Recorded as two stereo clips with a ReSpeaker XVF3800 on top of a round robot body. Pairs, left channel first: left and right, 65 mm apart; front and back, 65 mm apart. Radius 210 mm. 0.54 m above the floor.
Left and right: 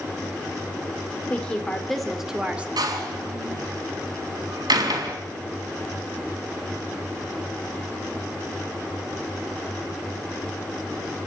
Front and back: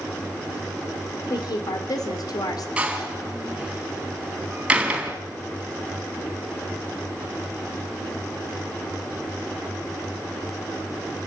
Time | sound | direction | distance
1.3 | a woman speaking | 20° left | 2.5 m
2.8 | a door slam | 105° right | 3.5 m